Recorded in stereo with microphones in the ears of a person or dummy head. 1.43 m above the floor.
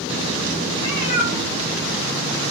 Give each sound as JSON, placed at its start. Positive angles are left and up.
{"t": 0.8, "sound": "a cat meowing", "side_deg": 70, "distance_m": 2.5}